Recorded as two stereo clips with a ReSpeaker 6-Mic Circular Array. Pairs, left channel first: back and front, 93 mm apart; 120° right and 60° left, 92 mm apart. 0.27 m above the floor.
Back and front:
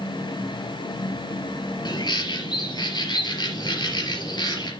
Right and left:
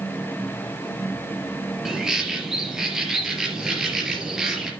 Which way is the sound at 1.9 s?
145° left.